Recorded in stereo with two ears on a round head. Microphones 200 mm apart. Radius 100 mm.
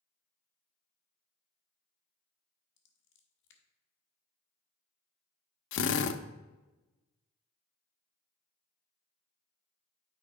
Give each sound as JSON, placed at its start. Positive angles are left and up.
{"t": 2.8, "sound": "scissors", "side_deg": 60, "distance_m": 1.5}
{"t": 5.7, "sound": "a drill", "side_deg": 60, "distance_m": 0.6}